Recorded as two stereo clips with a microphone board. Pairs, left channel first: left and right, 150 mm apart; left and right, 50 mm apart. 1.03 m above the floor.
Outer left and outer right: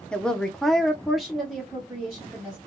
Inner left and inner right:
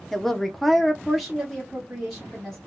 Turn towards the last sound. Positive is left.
turn(degrees=-5)  # may be behind; listen again after turning